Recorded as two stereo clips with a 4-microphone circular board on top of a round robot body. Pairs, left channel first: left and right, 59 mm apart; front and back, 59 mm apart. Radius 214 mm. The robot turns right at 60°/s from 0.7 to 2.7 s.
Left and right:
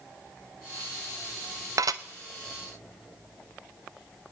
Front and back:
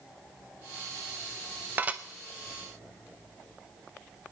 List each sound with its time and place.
1.8 s dishes clattering: 120° right, 0.6 m; by 2.0 s 105° right, 0.6 m